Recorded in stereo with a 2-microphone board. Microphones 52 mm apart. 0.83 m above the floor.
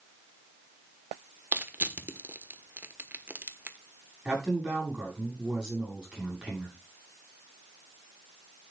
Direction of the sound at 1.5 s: 40° right (ahead or behind).